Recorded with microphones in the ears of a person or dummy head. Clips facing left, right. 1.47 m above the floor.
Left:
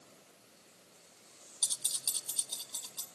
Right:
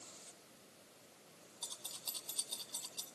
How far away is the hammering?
I don't hear hammering.